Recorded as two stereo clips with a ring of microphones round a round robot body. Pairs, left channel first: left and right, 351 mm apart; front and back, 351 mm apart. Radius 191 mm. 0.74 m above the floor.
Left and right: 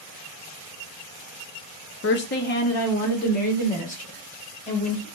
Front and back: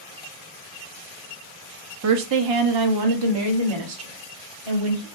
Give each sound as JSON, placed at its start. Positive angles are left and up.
{"t": 2.0, "sound": "a woman speaking", "azimuth_deg": 140, "distance_m": 0.6}